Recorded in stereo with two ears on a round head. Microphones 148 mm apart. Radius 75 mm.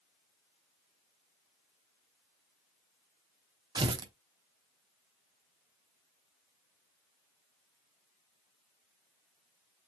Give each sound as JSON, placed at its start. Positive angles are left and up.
{"t": 3.8, "sound": "tearing paper", "side_deg": -25, "distance_m": 0.6}